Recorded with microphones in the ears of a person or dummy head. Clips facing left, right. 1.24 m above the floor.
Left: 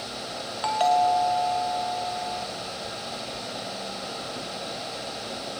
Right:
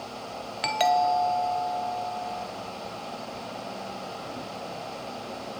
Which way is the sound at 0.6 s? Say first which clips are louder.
Left 2 dB; 25° right (ahead or behind).